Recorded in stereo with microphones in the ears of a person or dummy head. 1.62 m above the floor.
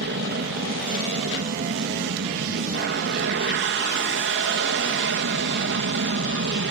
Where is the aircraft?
55° right (ahead or behind).